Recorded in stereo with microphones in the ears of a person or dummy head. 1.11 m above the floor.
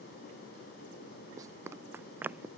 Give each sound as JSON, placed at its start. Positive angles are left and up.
{"t": 1.4, "sound": "running footsteps", "side_deg": -20}